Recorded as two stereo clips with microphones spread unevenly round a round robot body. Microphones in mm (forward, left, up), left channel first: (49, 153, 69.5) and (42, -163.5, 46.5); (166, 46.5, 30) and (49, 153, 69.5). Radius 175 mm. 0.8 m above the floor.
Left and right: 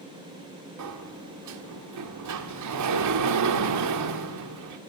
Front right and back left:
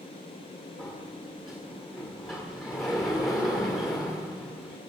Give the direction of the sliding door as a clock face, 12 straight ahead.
4 o'clock.